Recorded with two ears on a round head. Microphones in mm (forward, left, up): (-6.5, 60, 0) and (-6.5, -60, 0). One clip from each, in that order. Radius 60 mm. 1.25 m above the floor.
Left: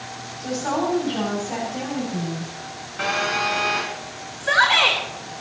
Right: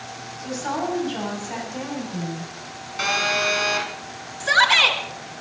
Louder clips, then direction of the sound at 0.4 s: Left 3 dB; 20° right (ahead or behind).